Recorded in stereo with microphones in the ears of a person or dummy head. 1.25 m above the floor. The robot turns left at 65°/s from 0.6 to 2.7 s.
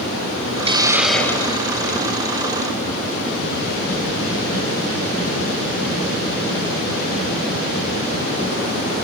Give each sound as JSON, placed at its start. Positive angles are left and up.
{"t": 0.7, "sound": "a hiss", "azimuth_deg": -150, "distance_m": 1.9}